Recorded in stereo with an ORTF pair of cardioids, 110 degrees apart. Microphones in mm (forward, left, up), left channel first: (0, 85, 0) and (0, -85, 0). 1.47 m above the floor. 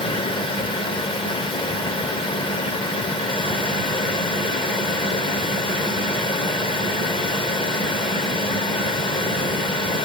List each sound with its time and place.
0.0 s a fan: 30° left, 0.7 m